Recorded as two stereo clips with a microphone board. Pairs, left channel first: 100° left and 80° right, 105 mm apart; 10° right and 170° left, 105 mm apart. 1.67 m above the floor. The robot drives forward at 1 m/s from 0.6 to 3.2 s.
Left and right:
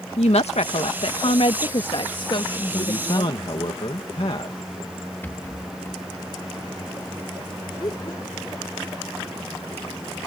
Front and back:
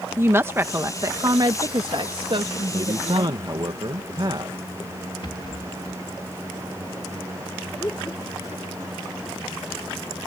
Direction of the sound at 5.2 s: 30° left.